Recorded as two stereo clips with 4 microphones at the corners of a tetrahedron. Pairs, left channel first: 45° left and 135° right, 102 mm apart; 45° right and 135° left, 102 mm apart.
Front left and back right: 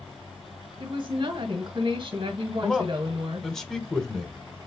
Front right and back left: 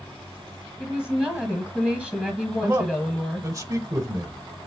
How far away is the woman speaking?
About 1.3 m.